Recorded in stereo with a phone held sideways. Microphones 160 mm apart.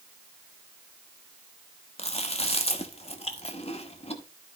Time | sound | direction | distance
2.0 | chewing | 40° left (ahead or behind) | 1.0 m